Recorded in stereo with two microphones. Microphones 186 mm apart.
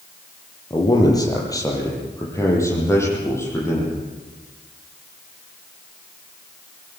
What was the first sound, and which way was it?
A man speaking, 20° left (ahead or behind).